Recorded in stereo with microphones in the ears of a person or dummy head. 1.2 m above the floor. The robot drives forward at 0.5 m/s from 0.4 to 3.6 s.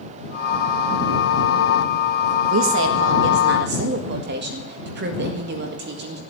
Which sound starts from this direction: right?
A woman speaking, at 2.5 s.